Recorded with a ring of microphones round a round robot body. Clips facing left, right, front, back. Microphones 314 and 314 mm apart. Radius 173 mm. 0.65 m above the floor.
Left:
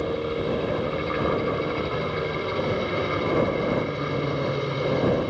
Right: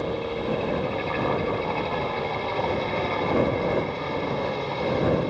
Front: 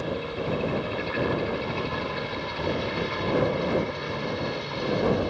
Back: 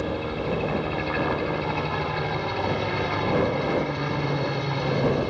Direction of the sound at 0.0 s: 165° left.